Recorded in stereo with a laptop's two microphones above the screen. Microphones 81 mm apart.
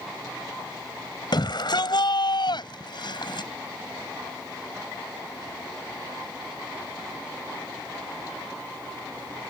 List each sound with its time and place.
1.3 s a shout: 65° left (ahead or behind)